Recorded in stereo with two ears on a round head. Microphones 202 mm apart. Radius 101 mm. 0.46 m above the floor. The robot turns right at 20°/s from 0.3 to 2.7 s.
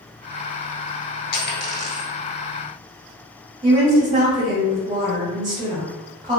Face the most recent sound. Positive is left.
turn(degrees=-20)  # may be behind; listen again after turning